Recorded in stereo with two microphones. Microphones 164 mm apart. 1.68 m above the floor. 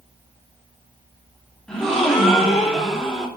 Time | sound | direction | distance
1.7 | a gasp | 5° left (ahead or behind) | 2.5 m